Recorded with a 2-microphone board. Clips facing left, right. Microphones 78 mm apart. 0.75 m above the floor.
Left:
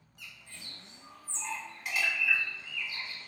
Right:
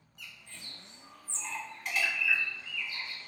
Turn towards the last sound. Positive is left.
turn(degrees=5)  # may be behind; listen again after turning